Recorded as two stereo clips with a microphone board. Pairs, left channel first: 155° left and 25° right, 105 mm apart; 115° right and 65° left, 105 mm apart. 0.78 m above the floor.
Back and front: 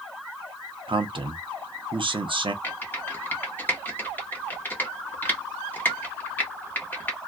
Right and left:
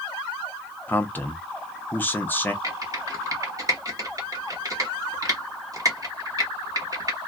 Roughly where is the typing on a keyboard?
Left.